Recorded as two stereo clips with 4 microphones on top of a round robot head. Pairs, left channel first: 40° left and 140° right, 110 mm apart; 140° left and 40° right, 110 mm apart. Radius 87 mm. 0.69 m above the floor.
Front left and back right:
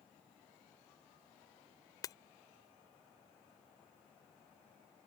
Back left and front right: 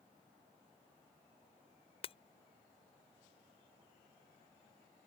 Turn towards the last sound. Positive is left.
turn(degrees=100)